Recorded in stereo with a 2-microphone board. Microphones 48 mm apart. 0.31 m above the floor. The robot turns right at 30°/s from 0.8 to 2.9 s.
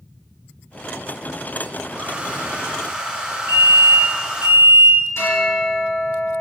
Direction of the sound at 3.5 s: 50° right (ahead or behind).